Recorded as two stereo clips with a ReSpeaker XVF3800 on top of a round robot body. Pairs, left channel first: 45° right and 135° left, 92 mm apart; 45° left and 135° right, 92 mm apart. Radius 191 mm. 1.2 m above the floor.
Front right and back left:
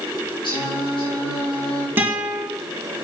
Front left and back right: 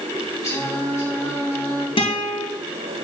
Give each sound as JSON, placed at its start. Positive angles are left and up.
{"t": 0.4, "sound": "singing", "azimuth_deg": -10, "distance_m": 6.0}
{"t": 2.0, "sound": "a guitar", "azimuth_deg": 65, "distance_m": 2.5}